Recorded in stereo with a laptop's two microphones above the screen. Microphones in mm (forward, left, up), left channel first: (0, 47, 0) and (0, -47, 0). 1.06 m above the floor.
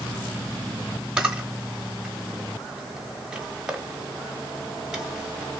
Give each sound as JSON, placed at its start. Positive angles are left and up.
{"t": 1.2, "sound": "a camera shutter", "side_deg": -10, "distance_m": 1.0}